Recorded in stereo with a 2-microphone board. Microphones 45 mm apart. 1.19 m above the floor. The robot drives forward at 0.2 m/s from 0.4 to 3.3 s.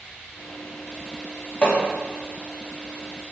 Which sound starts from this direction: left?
Hammering, at 1.6 s.